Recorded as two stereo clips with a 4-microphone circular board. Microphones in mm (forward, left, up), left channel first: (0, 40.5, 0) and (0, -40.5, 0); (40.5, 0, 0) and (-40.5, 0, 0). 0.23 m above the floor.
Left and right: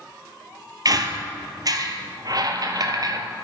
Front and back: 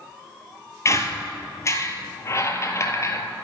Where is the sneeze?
I don't hear a sneeze.